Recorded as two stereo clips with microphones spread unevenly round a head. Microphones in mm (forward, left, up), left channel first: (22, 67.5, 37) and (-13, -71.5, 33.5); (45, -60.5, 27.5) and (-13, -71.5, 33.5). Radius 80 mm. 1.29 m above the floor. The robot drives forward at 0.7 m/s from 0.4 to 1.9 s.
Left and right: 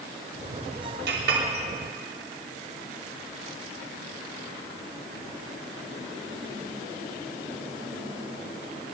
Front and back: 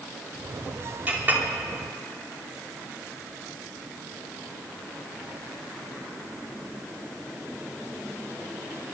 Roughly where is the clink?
Right.